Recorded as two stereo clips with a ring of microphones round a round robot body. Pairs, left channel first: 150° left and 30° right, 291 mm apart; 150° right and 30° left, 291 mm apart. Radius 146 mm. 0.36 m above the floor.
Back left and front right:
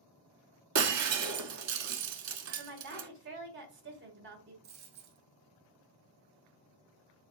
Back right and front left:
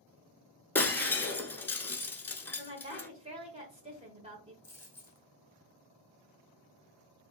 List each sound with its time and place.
0.8 s breaking glass: 65° right, 0.6 m
2.6 s a woman speaking: 25° right, 1.3 m
4.6 s a dropped coin: 65° right, 2.5 m